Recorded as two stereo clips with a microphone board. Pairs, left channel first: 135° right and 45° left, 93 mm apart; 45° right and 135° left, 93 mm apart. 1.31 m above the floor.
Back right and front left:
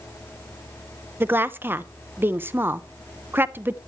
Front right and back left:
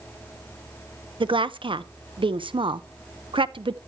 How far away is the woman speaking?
About 0.8 m.